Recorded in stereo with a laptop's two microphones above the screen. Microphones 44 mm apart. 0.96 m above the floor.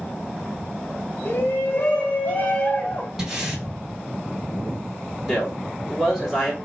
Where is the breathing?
15° right (ahead or behind), 3.5 m.